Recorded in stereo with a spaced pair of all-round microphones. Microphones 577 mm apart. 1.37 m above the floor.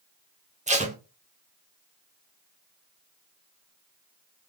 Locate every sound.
0.7 s tape being pulled: 15° right (ahead or behind), 0.5 m